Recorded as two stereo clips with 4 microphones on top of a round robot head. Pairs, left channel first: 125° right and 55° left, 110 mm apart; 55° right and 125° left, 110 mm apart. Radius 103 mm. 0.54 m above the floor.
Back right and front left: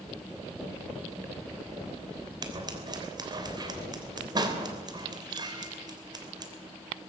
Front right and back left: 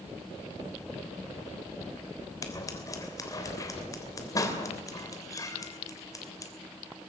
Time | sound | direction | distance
2.4 | scissors | 5° left | 3 m